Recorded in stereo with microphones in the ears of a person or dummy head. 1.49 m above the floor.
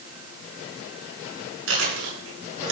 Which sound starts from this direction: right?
Chewing, at 1.7 s.